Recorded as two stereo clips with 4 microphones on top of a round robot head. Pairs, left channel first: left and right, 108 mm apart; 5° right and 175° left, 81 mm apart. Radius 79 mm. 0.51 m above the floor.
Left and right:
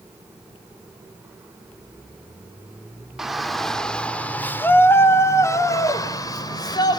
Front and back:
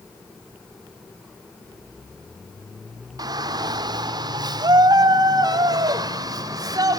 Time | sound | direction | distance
3.2 | a shout | 175° right | 1.8 m